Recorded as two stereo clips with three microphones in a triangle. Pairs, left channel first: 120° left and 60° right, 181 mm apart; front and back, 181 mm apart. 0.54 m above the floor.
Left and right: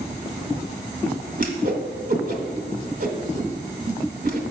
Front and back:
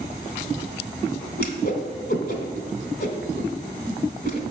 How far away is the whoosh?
About 1.0 m.